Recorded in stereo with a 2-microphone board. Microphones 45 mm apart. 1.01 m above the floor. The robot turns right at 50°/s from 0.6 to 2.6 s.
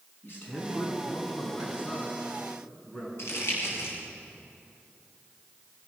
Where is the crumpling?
70° left (ahead or behind), 7 m.